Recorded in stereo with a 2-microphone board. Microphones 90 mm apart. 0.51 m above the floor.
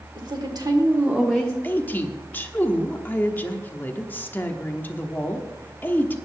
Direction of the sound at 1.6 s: 20° left (ahead or behind).